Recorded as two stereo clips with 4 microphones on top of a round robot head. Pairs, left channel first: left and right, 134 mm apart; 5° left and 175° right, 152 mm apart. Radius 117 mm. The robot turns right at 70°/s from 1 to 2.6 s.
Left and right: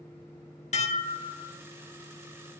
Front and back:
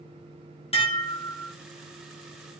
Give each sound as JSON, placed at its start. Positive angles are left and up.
{"t": 0.7, "sound": "dishes clattering", "azimuth_deg": 55, "distance_m": 1.7}